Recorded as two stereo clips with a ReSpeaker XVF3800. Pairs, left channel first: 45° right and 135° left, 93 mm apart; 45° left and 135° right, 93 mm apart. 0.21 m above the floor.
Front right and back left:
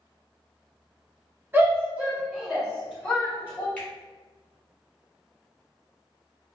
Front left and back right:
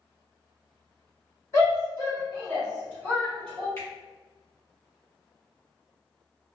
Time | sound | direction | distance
1.5 | a shout | 80° left | 1.7 m
3.8 | a finger snap | 20° left | 1.6 m